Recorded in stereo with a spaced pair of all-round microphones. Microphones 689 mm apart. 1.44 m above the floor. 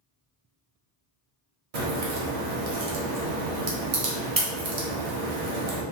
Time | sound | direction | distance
1.7 | a crack | 55° right (ahead or behind) | 0.9 m